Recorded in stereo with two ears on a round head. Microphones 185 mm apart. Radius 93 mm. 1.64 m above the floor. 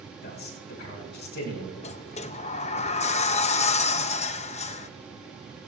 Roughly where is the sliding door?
Left.